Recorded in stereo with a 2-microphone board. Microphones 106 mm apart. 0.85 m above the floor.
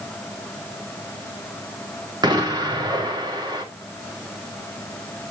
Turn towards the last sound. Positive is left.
turn(degrees=-45)  # may be behind; listen again after turning